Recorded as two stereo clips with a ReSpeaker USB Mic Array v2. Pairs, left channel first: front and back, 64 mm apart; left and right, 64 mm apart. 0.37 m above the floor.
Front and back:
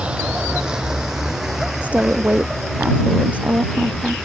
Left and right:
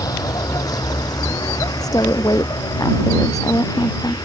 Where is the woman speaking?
110° left.